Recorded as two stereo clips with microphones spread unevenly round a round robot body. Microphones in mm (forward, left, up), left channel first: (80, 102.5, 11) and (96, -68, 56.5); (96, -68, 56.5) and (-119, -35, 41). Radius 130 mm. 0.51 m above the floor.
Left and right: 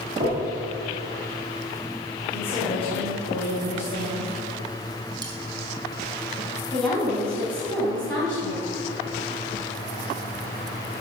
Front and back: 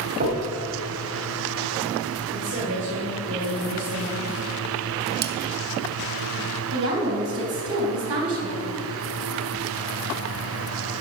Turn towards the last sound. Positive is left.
turn(degrees=175)